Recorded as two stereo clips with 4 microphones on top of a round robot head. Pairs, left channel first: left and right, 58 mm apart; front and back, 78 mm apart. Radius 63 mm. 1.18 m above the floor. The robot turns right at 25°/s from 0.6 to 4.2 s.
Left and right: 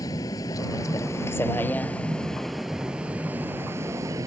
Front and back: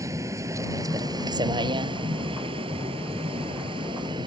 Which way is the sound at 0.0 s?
130° left.